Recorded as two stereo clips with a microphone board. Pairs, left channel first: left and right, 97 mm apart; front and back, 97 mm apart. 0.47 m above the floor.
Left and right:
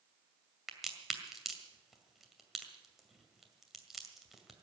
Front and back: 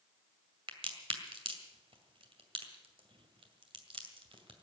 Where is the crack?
175° right, 2 m.